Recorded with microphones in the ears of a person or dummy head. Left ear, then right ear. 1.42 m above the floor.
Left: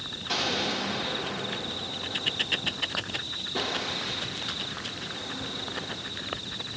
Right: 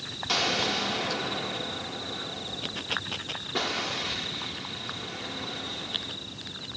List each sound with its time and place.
0.3 s an explosion: 20° right (ahead or behind), 1.8 m